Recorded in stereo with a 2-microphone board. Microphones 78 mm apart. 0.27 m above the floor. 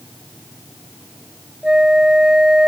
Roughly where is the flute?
Centre.